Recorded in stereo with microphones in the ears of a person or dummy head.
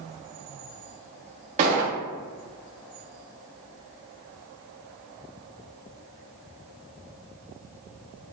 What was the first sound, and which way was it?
A gunshot, 35° right (ahead or behind).